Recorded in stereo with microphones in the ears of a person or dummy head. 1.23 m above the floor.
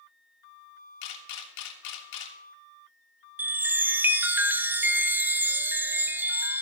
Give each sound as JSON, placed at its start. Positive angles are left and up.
{"t": 1.0, "sound": "a camera shutter", "side_deg": 70, "distance_m": 3.0}
{"t": 3.4, "sound": "a chime", "side_deg": -5, "distance_m": 0.8}